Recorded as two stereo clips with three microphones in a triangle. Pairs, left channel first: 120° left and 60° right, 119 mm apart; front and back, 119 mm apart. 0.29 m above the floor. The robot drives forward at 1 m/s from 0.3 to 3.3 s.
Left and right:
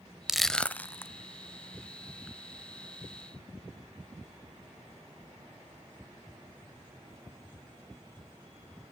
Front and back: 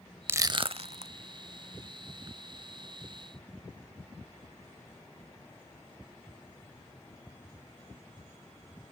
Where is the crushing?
140° right, 0.5 m; by 1.1 s 170° right, 1.1 m.